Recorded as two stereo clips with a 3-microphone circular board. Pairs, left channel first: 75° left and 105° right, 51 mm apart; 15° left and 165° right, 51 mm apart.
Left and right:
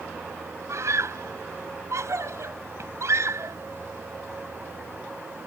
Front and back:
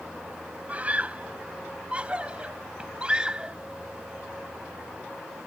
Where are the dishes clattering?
No dishes clattering in this recording.